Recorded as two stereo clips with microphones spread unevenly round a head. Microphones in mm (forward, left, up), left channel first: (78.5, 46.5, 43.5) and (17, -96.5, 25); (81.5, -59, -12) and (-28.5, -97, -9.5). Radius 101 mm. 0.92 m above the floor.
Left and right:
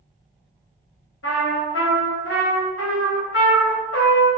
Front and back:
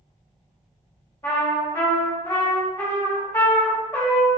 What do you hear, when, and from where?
1.2 s a trumpet: 95° left, 1.0 m